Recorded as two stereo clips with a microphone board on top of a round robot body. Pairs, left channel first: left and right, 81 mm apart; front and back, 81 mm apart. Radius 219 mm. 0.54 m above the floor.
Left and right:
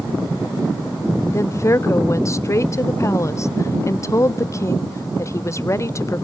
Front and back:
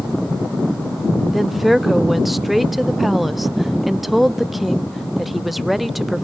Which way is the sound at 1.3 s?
90° left.